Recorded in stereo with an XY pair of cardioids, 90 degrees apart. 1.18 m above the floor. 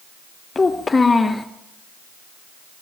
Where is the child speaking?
30° left, 0.9 m.